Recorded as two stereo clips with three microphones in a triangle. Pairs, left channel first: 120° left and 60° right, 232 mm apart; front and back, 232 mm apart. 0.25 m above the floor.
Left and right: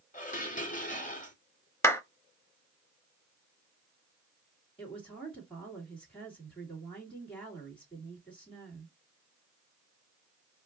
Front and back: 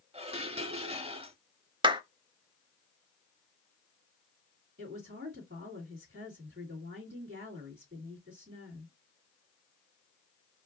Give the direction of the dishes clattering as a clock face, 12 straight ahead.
7 o'clock.